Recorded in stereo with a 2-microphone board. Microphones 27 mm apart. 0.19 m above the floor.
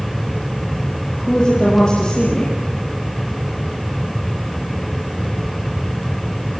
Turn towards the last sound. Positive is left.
turn(degrees=30)  # may be behind; listen again after turning